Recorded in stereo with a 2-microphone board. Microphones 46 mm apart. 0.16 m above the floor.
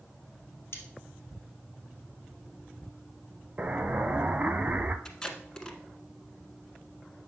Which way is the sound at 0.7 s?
60° left (ahead or behind).